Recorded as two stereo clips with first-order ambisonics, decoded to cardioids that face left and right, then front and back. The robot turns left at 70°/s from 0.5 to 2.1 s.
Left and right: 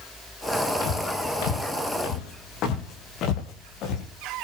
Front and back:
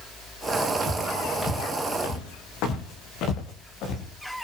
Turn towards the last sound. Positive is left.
turn(degrees=45)